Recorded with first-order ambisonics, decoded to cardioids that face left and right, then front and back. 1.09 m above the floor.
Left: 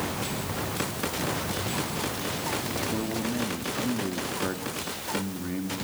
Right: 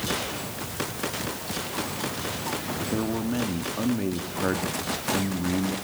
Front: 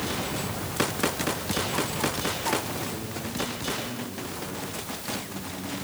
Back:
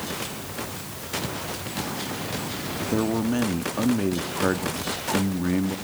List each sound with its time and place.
2.9 s a man speaking: 165° right, 1.8 m